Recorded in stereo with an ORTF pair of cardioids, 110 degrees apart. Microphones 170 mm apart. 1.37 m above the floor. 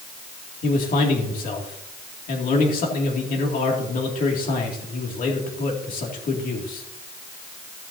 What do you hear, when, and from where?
0.6 s a man speaking: 55° left, 2.5 m